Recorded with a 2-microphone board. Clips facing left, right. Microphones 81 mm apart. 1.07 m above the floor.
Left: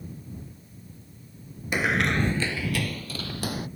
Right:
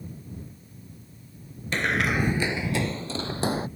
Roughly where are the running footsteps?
Centre.